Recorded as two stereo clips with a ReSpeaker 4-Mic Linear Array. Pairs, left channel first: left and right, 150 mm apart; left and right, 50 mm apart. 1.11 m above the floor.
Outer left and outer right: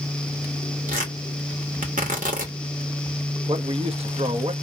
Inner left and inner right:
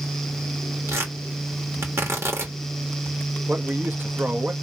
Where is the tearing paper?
60° right (ahead or behind), 2 m.